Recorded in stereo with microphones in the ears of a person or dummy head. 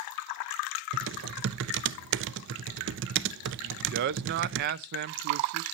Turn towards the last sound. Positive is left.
turn(degrees=-50)  # may be behind; listen again after turning